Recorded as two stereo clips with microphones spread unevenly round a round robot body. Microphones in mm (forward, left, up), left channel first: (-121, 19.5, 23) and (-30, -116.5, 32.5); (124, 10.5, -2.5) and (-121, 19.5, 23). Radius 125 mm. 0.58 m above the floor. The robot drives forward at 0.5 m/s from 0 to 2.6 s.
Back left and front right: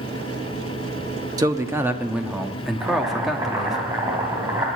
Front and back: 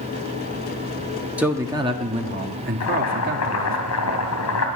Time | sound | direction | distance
1.4 | a man speaking | 90° right | 1.1 m
2.8 | boiling | 25° left | 2.5 m